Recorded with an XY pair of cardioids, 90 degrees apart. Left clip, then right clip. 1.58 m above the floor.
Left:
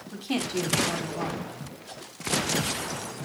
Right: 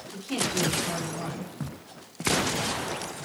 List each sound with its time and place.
0.1 s a woman speaking: 65° left, 4 m